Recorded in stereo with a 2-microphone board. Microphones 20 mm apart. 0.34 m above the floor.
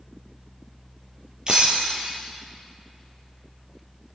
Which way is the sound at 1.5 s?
35° right (ahead or behind).